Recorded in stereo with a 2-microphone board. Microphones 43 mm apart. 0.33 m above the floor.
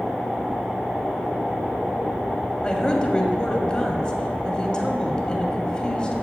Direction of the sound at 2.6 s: 20° left (ahead or behind).